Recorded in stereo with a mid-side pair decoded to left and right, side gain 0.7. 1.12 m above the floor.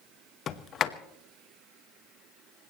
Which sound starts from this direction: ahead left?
A sliding door, at 0.5 s.